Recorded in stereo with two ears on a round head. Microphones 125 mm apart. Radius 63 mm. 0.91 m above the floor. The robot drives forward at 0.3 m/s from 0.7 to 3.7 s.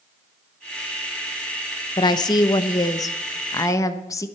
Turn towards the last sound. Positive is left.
turn(degrees=25)  # may be behind; listen again after turning